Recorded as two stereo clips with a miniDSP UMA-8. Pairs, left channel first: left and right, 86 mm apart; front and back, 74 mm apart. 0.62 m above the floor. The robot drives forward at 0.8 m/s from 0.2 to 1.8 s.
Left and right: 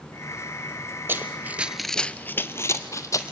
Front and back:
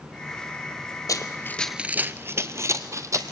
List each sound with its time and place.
1.1 s running footsteps: 30° right, 1.1 m; by 3.3 s 140° left, 1.4 m